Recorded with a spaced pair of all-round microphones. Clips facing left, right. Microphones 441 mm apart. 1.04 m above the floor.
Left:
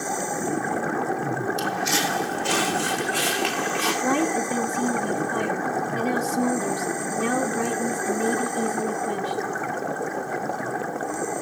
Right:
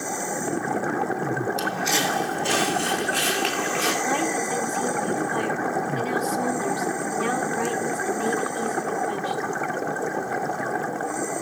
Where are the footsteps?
30° left (ahead or behind), 2.5 m; by 3.9 s 15° left (ahead or behind), 5.5 m.